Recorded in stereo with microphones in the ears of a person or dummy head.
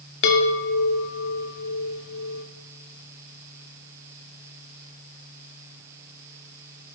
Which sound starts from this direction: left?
A chime, at 0.2 s.